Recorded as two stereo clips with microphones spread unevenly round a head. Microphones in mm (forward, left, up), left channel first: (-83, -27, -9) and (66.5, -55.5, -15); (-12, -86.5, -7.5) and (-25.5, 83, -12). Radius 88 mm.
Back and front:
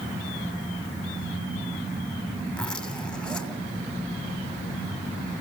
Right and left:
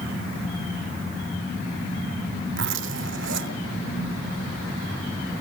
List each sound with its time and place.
2.5 s a zipper: 85° left, 2.5 m